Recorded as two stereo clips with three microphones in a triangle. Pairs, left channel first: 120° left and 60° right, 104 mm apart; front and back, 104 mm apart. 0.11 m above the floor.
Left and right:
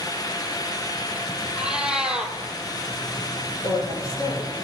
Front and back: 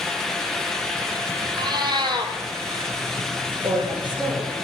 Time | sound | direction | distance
1.6 | a cat meowing | 140° right | 0.9 m
3.6 | a woman speaking | 160° left | 1.9 m